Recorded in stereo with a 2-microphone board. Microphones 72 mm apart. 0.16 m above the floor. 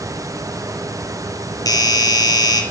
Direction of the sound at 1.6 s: 55° left (ahead or behind).